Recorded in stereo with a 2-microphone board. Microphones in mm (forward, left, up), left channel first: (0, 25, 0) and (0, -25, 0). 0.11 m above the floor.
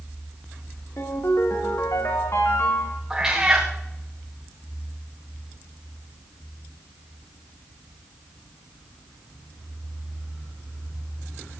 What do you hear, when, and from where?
1.0 s a ringtone: 75° left (ahead or behind), 5 m
3.1 s a cat meowing: 15° right (ahead or behind), 4 m